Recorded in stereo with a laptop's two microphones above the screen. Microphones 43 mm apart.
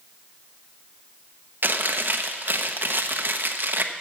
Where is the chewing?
50° right (ahead or behind), 0.7 m.